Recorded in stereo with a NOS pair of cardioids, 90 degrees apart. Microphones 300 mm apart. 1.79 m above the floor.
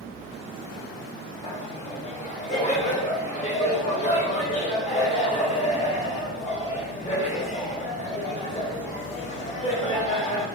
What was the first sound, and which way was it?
Laughter, 25° left.